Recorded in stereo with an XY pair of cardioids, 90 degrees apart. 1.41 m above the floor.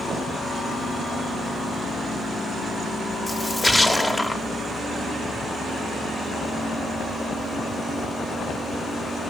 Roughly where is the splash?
Ahead.